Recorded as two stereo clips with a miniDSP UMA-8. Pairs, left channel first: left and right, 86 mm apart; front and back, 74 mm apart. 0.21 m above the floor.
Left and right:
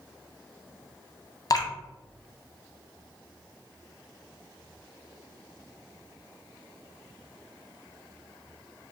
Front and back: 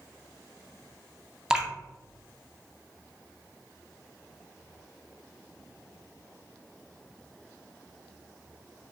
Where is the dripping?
105° left, 0.6 m.